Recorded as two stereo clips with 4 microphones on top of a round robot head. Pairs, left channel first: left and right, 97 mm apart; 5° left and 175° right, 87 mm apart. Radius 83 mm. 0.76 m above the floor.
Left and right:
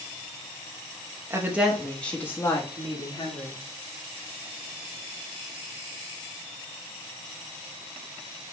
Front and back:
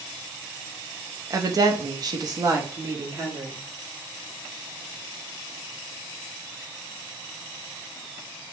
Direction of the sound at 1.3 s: 145° right.